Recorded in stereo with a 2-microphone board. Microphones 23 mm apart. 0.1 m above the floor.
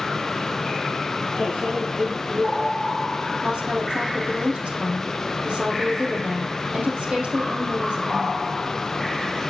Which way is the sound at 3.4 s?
65° right (ahead or behind).